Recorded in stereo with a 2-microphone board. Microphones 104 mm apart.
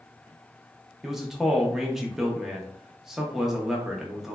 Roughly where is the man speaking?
Centre.